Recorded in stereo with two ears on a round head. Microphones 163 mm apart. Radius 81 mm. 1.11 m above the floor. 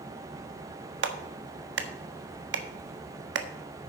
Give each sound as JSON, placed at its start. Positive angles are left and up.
{"t": 1.0, "sound": "a clap", "side_deg": -75, "distance_m": 1.2}